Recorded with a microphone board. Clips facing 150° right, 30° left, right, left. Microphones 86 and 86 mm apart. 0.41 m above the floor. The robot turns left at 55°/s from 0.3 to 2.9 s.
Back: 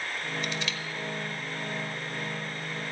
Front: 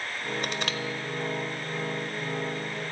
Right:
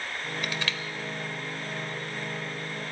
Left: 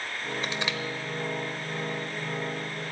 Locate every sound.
0.4 s crushing: 35° left, 1.0 m; by 0.8 s 15° left, 1.0 m